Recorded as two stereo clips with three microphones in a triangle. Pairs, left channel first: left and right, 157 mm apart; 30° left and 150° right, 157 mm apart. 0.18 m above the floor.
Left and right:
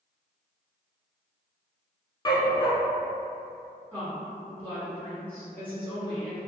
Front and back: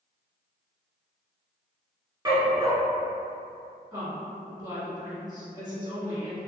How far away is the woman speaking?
About 1.8 m.